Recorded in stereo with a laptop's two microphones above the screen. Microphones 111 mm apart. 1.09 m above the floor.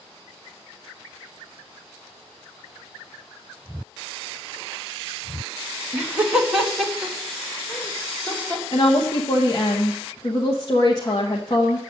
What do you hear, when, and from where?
5.9 s laughter: 20° right (ahead or behind), 1.2 m; by 8.6 s 20° left (ahead or behind), 2.5 m
8.7 s a woman speaking: 40° left (ahead or behind), 0.9 m